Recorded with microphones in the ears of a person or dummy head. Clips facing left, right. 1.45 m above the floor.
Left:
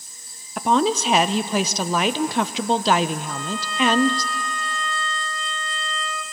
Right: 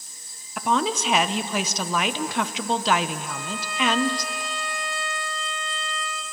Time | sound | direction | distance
0.6 | a woman speaking | 30° left (ahead or behind) | 0.6 m
3.2 | a violin | 10° right (ahead or behind) | 0.8 m